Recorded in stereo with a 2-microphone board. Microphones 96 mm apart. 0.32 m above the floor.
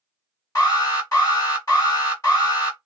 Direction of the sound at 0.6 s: 35° left (ahead or behind).